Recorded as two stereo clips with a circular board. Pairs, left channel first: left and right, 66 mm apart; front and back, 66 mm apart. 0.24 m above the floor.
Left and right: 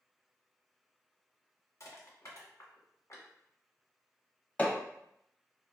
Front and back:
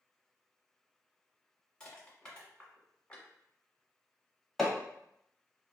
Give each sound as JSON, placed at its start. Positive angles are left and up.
{"t": 1.8, "sound": "crushing", "azimuth_deg": 70, "distance_m": 1.6}
{"t": 4.6, "sound": "hammering", "azimuth_deg": 85, "distance_m": 0.8}